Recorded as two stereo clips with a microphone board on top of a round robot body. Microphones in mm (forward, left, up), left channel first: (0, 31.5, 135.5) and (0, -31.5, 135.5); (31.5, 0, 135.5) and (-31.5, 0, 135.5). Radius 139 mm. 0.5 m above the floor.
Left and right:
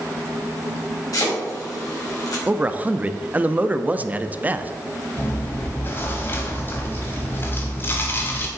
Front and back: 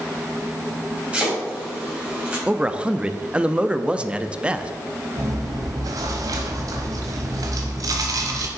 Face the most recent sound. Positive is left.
turn(degrees=145)